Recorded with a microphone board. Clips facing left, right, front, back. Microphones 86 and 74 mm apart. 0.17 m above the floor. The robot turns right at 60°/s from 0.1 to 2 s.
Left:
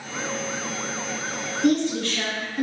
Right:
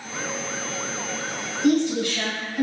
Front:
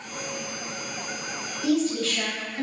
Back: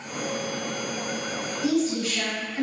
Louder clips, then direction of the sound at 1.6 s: Right 1 dB, front 1 dB; 165° right.